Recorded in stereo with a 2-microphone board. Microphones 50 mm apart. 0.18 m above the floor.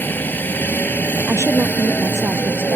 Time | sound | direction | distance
0.0 | a helicopter | 40° left (ahead or behind) | ?
1.3 | a woman speaking | 65° right (ahead or behind) | ?